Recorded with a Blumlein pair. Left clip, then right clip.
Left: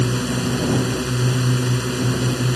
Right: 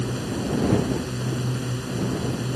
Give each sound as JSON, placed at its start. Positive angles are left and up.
{"t": 0.0, "sound": "a drone", "azimuth_deg": 25}